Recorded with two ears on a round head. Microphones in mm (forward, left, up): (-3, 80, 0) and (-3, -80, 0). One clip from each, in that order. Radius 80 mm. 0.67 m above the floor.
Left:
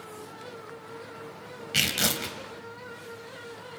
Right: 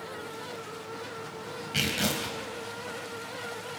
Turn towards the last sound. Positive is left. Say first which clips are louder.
# left 3 dB
turn(degrees=35)  # may be behind; listen again after turning